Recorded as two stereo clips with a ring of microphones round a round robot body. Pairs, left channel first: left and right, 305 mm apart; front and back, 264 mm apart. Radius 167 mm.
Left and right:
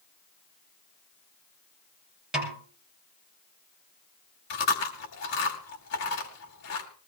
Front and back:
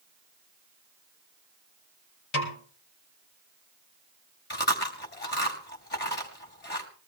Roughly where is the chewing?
Ahead left.